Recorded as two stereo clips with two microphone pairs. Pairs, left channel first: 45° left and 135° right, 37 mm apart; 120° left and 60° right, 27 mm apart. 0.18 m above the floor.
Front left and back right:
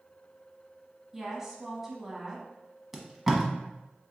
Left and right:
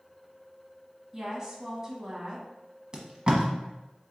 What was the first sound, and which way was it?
A woman speaking, 65° right.